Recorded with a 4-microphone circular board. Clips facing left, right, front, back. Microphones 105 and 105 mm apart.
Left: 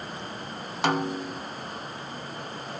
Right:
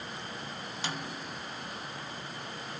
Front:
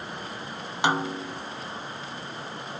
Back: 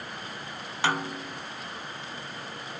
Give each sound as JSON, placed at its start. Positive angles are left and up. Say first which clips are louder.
{"t": 0.8, "sound": "a snare drum", "louder": "left 14 dB, front 3 dB", "azimuth_deg": 70}